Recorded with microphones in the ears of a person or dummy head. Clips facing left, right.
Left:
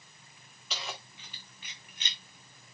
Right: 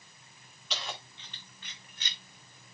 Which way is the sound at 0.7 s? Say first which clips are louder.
Right 1 dB; 5° left (ahead or behind).